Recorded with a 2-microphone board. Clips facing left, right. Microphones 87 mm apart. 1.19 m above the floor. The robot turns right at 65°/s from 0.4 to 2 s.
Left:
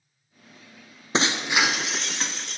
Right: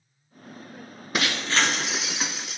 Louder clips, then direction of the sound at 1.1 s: Left 2 dB; 135° left.